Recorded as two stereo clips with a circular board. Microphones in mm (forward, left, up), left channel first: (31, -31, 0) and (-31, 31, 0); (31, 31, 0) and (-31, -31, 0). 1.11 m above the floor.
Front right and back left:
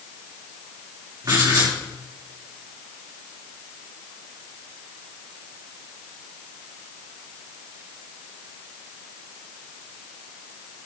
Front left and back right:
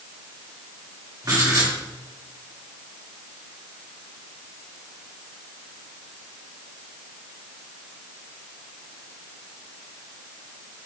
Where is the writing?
Straight behind, 3.5 m.